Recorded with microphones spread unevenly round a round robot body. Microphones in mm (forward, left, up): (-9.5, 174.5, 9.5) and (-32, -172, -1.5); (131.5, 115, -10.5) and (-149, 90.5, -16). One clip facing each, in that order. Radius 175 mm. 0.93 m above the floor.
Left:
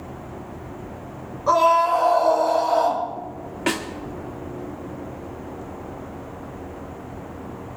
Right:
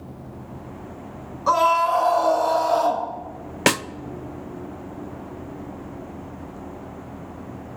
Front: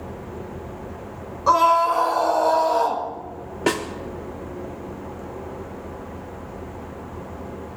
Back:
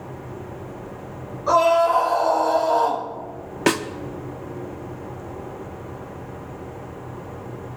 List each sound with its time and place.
1.5 s a scream: 40° right, 4.5 m
3.7 s a snare drum: 110° right, 0.6 m